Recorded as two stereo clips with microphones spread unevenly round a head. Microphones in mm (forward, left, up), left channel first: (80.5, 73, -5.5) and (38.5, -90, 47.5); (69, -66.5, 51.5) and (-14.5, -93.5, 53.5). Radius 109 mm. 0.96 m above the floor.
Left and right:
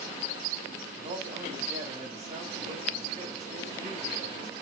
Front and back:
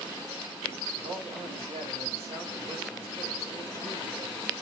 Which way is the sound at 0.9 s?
155° right.